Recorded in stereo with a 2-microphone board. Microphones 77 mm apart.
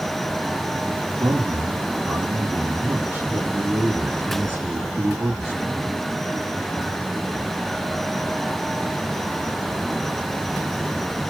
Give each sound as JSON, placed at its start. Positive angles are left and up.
{"t": 1.2, "sound": "a man speaking", "side_deg": -25, "distance_m": 2.5}